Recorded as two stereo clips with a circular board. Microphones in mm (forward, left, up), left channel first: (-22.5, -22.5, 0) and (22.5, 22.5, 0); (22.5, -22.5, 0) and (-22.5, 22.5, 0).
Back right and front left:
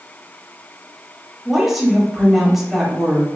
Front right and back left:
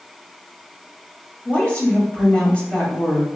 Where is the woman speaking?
35° right, 0.9 m.